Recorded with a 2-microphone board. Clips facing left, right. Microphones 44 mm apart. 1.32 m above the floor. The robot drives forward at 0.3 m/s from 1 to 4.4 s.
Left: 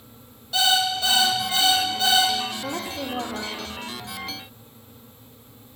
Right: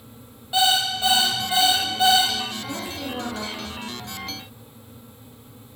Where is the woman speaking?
45° left (ahead or behind), 1.6 m; by 4.0 s 40° left (ahead or behind), 1.9 m.